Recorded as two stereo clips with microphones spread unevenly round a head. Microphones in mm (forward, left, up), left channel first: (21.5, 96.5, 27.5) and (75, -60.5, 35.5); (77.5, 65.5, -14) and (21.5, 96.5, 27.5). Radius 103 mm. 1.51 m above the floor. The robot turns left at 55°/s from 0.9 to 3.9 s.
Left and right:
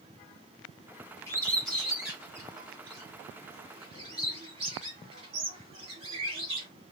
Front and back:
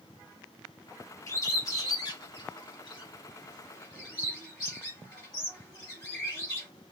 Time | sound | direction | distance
1.3 | a bird | 45° left | 1.2 m